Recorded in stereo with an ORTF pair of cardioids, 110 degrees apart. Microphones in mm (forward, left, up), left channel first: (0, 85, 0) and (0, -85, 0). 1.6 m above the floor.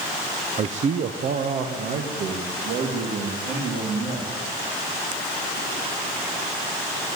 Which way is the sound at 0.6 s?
35° right.